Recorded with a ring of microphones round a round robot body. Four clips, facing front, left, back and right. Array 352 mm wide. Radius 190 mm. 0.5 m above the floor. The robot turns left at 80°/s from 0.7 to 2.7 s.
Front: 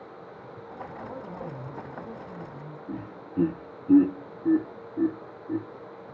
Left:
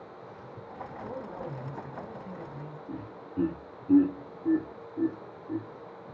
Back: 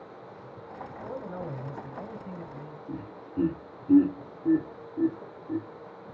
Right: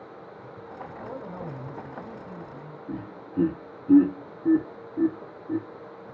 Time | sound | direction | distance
0.8 | a man speaking | 105° right | 4 m
2.9 | laughter | 60° right | 1.1 m